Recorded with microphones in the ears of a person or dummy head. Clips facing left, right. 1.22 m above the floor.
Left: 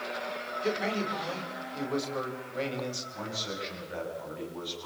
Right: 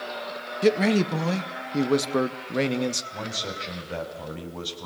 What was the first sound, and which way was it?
A man speaking, 75° right (ahead or behind).